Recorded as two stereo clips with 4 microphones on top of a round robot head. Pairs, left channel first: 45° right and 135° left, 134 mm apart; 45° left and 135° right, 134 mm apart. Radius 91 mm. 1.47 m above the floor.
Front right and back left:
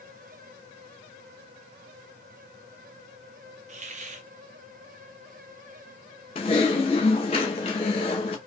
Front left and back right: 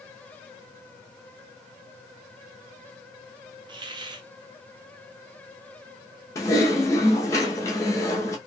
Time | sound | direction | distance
3.7 | a hiss | 170° left | 0.7 m
6.3 | typing on a keyboard | 15° right | 0.8 m